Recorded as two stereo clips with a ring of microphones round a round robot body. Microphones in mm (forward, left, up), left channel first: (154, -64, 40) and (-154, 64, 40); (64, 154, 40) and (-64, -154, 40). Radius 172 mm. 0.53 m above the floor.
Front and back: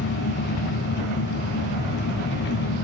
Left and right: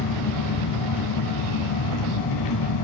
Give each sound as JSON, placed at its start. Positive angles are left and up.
{"t": 0.0, "sound": "an engine running", "azimuth_deg": 40, "distance_m": 2.0}